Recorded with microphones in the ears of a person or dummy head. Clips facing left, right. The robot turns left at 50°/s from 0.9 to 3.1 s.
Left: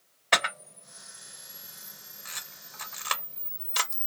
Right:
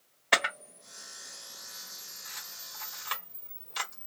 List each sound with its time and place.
0.3 s a camera shutter: straight behind, 1.0 m; by 4.1 s 70° left, 1.0 m